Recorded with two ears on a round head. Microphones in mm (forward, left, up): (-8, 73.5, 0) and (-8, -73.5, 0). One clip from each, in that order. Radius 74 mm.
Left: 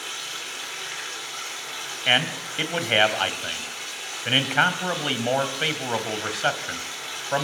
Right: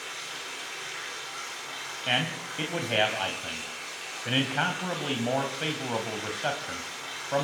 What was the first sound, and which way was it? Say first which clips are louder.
Running water: left 5 dB; 30° left (ahead or behind).